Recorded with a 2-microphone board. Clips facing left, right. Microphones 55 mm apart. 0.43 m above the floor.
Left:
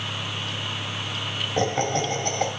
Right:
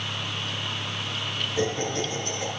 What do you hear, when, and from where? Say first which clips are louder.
1.6 s laughter: left 4 dB; 65° left (ahead or behind), 2.5 m